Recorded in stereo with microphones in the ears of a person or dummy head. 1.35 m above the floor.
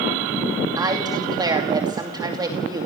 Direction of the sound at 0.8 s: 20° right (ahead or behind).